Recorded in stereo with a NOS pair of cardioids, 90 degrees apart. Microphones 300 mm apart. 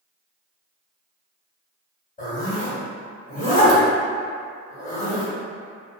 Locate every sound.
2.2 s a zipper: 25° left, 1.8 m